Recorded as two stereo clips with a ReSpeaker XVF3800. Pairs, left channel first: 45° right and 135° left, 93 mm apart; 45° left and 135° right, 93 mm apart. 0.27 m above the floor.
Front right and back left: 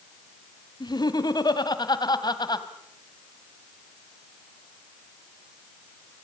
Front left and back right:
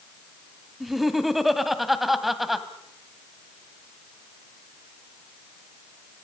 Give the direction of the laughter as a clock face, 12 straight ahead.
2 o'clock.